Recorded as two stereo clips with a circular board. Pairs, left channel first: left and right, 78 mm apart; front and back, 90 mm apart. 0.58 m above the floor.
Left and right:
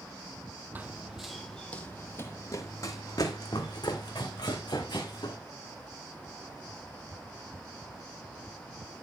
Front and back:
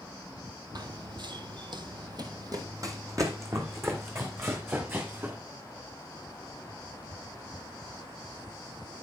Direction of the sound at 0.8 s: 150° right.